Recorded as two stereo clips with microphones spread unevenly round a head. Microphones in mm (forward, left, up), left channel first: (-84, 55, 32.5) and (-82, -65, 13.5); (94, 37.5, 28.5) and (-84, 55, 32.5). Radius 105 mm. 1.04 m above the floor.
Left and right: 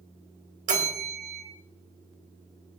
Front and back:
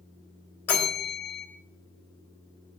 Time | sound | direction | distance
0.7 | a bell | 85° right | 3 m